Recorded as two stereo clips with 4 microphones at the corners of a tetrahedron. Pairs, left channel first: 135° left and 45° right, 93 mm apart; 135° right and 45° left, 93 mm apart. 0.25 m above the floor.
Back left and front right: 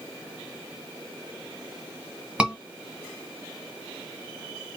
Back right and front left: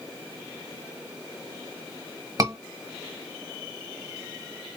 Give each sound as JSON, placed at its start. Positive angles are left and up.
{"t": 2.4, "sound": "a scream", "azimuth_deg": 30, "distance_m": 1.4}